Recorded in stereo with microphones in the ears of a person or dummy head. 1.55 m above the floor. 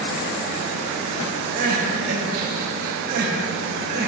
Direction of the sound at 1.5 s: 55° right (ahead or behind).